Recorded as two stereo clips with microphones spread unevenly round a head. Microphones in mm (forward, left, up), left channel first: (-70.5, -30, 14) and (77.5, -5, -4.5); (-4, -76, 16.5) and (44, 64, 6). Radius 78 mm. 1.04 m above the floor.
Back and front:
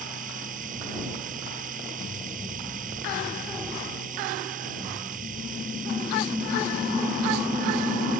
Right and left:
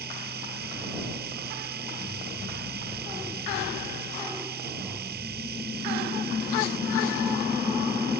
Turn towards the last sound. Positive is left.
turn(degrees=55)